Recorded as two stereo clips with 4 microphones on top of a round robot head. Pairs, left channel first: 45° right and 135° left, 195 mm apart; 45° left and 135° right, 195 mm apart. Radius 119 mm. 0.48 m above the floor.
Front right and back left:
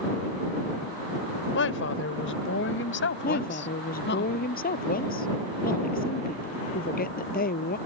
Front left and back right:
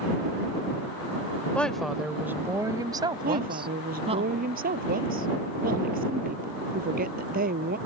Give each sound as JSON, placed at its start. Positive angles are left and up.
{"t": 1.5, "sound": "a woman speaking", "azimuth_deg": -40}
{"t": 3.2, "sound": "a woman speaking", "azimuth_deg": -90}